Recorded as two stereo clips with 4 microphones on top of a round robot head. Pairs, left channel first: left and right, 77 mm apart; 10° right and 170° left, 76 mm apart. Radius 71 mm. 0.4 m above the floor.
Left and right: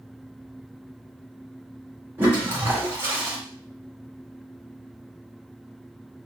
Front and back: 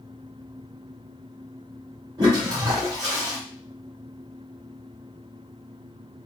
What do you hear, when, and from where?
2.2 s a toilet flushing: 145° right, 2.5 m